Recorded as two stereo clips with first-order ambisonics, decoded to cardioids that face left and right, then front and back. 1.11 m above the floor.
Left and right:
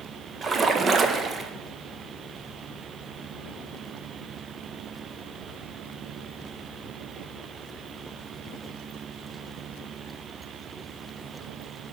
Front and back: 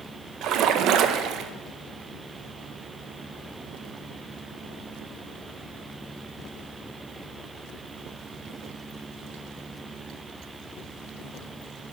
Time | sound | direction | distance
0.4 | a splash | 155° right | 0.6 m